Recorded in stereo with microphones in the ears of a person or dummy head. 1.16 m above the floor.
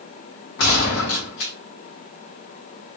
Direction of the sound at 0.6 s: 70° left (ahead or behind).